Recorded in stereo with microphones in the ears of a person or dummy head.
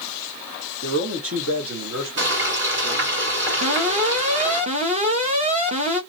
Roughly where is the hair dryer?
No hair dryer in this recording.